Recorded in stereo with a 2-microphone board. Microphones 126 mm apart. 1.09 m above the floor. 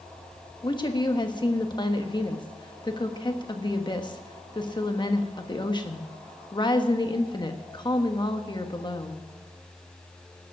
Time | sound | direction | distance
0.6 | a woman speaking | 35° left (ahead or behind) | 1.3 m